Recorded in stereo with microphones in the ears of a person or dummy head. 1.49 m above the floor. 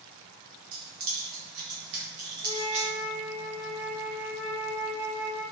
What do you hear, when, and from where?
0.7 s keys jangling: 70° right (ahead or behind), 1.3 m; by 2.9 s 20° right (ahead or behind), 0.6 m
2.4 s a flute: 15° right (ahead or behind), 1.0 m